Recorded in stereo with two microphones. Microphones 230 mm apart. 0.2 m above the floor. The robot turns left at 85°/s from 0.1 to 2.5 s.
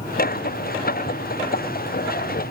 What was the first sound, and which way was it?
Only background noise.